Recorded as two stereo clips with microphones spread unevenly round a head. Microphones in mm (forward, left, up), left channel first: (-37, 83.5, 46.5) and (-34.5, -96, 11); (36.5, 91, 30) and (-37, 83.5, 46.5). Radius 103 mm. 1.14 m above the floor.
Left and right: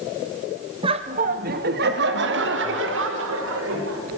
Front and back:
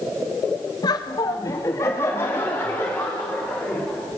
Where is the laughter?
25° right, 1.5 m; by 4.2 s 80° right, 5.5 m.